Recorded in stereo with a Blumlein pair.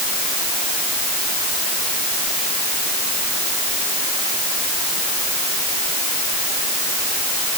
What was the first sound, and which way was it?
Only background noise.